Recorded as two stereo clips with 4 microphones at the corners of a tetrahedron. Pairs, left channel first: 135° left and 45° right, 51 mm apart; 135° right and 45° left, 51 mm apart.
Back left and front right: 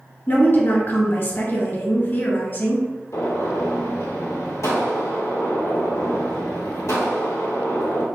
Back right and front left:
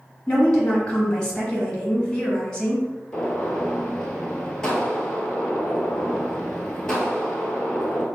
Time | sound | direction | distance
0.3 | a woman speaking | 155° left | 1.8 m
3.1 | a gunshot | 150° left | 1.1 m